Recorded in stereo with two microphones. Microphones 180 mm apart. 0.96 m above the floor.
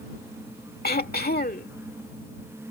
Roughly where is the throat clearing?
Left.